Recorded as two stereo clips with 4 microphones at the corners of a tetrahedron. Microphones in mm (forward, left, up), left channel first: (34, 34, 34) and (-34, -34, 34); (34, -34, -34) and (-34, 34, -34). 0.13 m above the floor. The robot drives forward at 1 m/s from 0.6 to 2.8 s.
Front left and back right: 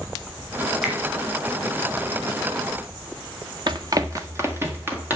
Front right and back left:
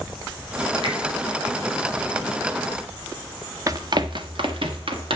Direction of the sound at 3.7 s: 170° right.